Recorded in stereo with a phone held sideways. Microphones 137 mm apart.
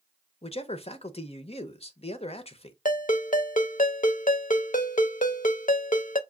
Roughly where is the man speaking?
Left.